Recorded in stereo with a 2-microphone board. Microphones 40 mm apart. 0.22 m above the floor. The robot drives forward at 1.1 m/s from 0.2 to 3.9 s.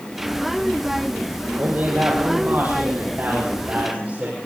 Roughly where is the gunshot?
No gunshot in this recording.